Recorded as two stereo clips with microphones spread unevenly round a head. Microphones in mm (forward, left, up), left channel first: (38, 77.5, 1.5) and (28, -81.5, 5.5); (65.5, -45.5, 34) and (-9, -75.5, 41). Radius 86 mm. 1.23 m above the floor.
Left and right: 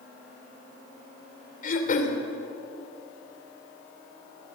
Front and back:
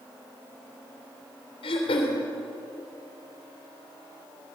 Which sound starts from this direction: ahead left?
Throat clearing, at 1.6 s.